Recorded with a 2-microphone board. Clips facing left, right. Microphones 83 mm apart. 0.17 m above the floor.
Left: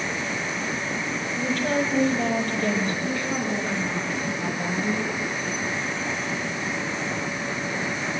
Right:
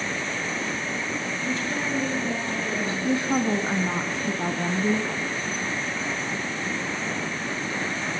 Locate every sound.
1.4 s a woman speaking: 60° left (ahead or behind), 6 m
3.0 s a woman speaking: 30° right (ahead or behind), 1.4 m